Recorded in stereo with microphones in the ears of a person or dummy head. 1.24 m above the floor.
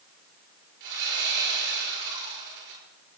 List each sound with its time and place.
0.8 s sawing: 65° right (ahead or behind), 10 m